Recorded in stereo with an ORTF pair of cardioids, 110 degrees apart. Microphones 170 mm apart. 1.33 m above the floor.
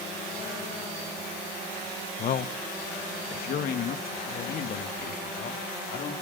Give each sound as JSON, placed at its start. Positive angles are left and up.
{"t": 2.2, "sound": "a man speaking", "azimuth_deg": 50, "distance_m": 1.0}